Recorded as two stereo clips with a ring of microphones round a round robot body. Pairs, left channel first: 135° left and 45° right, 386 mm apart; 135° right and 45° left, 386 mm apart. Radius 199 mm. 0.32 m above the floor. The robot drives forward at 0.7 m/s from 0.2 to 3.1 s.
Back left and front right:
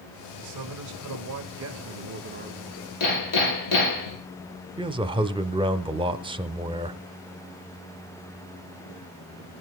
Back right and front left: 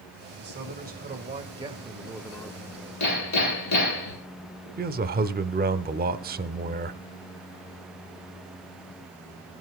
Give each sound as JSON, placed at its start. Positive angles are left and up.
{"t": 0.4, "sound": "a man speaking", "azimuth_deg": -15, "distance_m": 2.0}
{"t": 3.0, "sound": "hammering", "azimuth_deg": 175, "distance_m": 6.0}
{"t": 4.8, "sound": "a man speaking", "azimuth_deg": 15, "distance_m": 0.9}